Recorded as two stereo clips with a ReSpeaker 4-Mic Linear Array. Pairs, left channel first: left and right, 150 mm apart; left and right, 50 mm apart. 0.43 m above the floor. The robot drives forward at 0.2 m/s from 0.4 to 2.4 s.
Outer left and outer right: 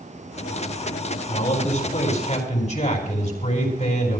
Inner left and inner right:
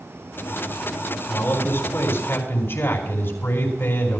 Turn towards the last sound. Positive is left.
turn(degrees=50)  # may be behind; listen again after turning